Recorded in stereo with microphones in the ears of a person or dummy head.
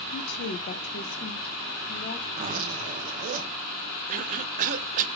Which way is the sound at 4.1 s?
40° right (ahead or behind).